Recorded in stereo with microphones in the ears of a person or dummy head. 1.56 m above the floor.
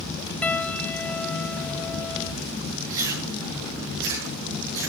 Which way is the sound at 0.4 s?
5° left (ahead or behind).